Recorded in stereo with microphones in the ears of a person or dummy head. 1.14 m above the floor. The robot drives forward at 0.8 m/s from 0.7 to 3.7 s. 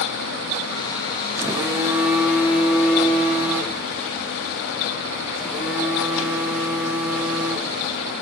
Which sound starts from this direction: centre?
A phone buzzing, at 1.4 s.